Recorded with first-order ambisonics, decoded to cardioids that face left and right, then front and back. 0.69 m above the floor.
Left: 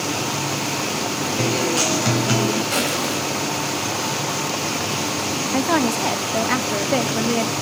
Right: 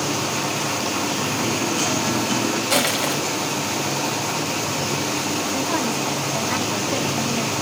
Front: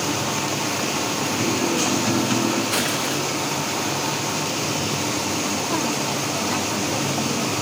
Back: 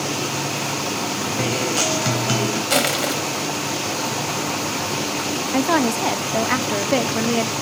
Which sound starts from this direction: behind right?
Crushing, at 2.7 s.